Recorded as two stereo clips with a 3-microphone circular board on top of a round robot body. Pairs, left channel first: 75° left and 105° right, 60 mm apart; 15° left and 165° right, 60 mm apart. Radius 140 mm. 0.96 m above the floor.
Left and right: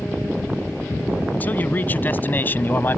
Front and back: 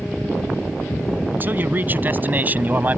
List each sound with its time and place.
1.3 s a man speaking: 140° left; by 3.0 s 135° left